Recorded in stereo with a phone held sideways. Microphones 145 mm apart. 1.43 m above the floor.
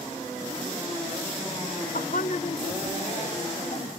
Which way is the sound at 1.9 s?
65° left (ahead or behind).